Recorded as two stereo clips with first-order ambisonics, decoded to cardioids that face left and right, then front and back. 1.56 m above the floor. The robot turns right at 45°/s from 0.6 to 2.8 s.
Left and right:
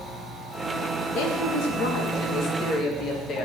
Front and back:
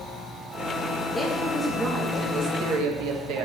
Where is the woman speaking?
75° left, 1.8 m; by 3.5 s 150° left, 1.8 m.